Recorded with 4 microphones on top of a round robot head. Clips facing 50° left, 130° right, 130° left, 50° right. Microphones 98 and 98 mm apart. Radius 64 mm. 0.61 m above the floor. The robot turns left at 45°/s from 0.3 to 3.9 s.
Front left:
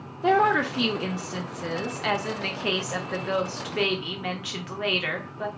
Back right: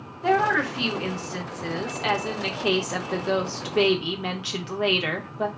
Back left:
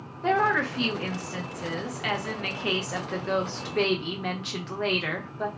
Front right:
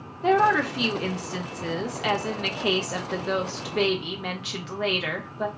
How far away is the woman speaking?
About 0.6 m.